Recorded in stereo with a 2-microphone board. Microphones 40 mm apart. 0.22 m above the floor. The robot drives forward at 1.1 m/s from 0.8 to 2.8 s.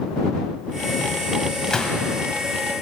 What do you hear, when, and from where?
1.7 s a gunshot: 20° left (ahead or behind), 1.4 m